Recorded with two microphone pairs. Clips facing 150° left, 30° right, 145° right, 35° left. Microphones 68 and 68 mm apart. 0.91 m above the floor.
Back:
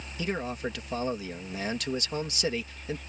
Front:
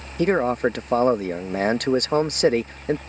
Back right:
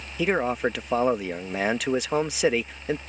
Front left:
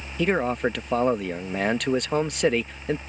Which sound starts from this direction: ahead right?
A man speaking, at 0.2 s.